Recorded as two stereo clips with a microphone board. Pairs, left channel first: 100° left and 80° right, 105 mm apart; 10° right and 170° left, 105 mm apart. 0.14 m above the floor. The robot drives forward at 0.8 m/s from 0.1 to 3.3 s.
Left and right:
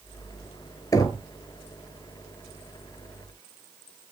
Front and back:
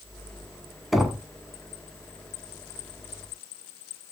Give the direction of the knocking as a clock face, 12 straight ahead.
9 o'clock.